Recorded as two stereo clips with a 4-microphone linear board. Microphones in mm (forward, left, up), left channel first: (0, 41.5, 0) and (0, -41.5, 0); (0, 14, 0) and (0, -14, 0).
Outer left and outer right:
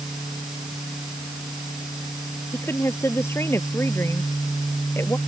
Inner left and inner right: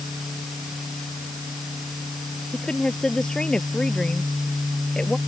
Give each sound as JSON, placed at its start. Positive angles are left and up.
{"t": 2.5, "sound": "a woman speaking", "side_deg": 30}